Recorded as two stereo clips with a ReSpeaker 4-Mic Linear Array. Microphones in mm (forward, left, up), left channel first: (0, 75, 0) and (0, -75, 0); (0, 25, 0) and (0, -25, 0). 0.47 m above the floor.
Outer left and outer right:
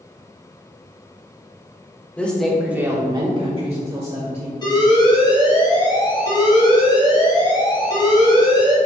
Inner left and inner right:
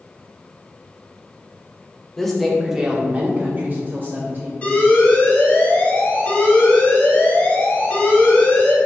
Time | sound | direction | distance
2.2 | a woman speaking | 10° left (ahead or behind) | 1.4 m
4.6 | an alarm | 30° left (ahead or behind) | 1.7 m